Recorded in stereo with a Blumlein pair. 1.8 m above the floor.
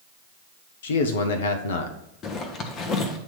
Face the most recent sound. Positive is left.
turn(degrees=30)